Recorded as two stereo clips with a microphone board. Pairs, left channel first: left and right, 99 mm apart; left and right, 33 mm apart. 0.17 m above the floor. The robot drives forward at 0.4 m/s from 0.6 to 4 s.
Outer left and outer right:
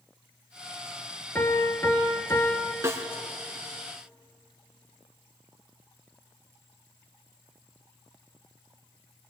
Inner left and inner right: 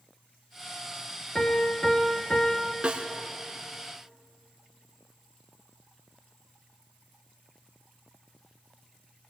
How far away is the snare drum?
About 2 m.